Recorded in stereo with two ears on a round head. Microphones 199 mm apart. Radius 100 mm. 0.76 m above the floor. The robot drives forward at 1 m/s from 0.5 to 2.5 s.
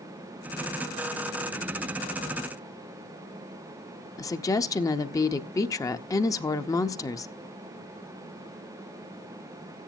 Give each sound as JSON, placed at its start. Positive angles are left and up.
{"t": 4.2, "sound": "a woman speaking", "side_deg": 15, "distance_m": 0.7}